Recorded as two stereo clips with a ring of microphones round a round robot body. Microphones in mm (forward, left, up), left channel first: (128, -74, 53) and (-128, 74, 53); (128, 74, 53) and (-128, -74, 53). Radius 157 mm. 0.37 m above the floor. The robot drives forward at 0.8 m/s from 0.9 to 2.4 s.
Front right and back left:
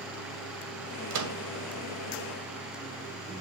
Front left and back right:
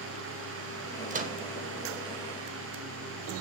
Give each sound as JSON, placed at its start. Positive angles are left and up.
{"t": 1.1, "sound": "a microwave", "azimuth_deg": 150, "distance_m": 1.8}